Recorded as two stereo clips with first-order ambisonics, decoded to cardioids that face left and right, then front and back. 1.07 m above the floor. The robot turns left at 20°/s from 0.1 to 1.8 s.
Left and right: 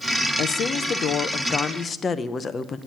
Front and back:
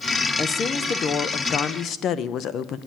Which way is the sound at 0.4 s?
55° left.